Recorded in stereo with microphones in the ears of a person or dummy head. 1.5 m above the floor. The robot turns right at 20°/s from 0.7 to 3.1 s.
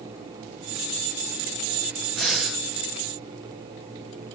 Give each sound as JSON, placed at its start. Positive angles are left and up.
{"t": 2.2, "sound": "breathing", "side_deg": 5, "distance_m": 0.6}